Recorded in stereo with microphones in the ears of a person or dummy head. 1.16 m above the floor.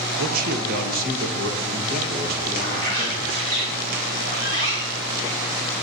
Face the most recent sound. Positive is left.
turn(degrees=-60)  # may be behind; listen again after turning